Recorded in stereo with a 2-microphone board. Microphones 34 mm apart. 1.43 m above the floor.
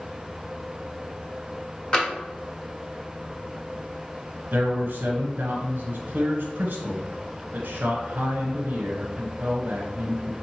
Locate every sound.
1.9 s tapping: 25° left (ahead or behind), 1.2 m
4.5 s a man speaking: 65° right (ahead or behind), 1.3 m